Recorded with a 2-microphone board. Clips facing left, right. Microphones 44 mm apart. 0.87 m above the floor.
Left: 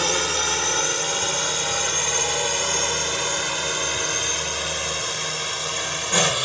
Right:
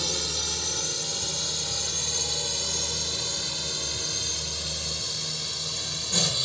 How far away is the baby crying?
No baby crying in this recording.